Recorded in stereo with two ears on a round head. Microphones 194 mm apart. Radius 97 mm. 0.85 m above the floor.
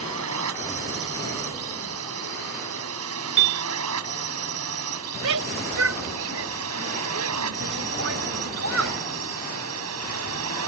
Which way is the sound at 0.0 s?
70° right (ahead or behind).